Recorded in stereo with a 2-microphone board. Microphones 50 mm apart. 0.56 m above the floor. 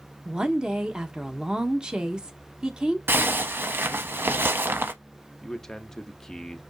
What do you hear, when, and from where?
0.2 s a woman speaking: 15° right (ahead or behind), 0.9 m
3.1 s a zipper: 45° right (ahead or behind), 0.5 m
5.4 s a man speaking: 10° left (ahead or behind), 0.6 m